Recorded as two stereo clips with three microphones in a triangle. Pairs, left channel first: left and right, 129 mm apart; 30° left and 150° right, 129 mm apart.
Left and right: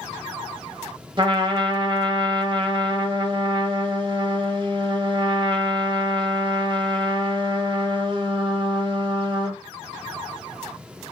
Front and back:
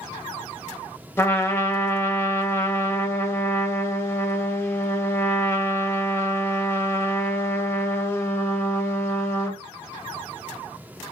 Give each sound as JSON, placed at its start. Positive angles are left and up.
{"t": 1.2, "sound": "a trumpet", "azimuth_deg": -40, "distance_m": 0.6}